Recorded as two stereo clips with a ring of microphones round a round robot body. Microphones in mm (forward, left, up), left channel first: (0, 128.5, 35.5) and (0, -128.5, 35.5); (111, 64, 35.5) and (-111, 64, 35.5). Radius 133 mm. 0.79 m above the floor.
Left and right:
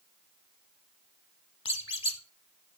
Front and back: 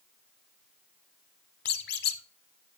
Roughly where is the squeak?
Ahead left.